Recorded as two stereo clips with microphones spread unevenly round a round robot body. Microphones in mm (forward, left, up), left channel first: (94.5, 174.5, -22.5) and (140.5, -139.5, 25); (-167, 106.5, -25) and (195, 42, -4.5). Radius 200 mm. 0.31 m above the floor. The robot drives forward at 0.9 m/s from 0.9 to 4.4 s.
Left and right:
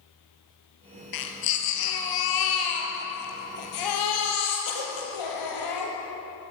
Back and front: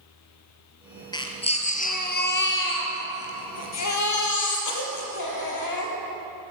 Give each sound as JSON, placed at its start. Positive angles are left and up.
{"t": 1.1, "sound": "a baby crying", "azimuth_deg": 90, "distance_m": 3.5}